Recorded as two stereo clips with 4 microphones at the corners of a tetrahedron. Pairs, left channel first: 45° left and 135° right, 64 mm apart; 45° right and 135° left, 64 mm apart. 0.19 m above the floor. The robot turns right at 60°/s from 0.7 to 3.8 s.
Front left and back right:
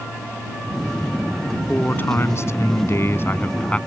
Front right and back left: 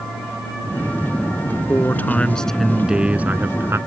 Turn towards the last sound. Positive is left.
turn(degrees=110)